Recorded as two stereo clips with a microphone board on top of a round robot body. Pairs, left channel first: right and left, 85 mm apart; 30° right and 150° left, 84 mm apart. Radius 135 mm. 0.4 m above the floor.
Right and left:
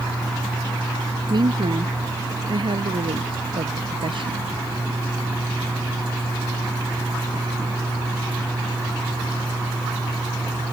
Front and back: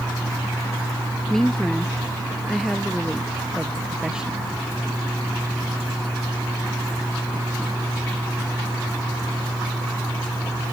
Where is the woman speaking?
55° left; by 4.4 s 70° left.